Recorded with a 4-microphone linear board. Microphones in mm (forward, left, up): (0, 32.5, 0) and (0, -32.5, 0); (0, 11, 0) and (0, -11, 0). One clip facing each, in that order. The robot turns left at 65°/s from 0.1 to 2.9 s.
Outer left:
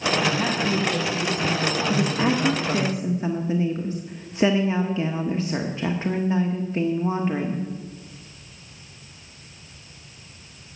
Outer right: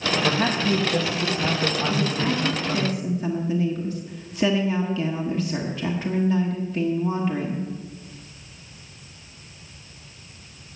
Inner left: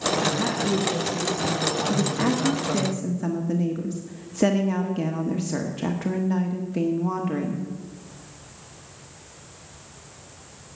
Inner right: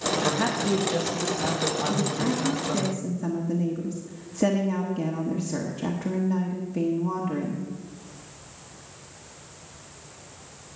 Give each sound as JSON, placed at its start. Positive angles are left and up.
{"t": 0.2, "sound": "a man speaking", "azimuth_deg": -50, "distance_m": 1.6}
{"t": 1.9, "sound": "a woman speaking", "azimuth_deg": 95, "distance_m": 0.9}